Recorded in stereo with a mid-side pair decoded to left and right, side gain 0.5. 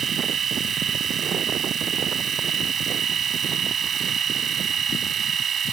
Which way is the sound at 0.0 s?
45° right.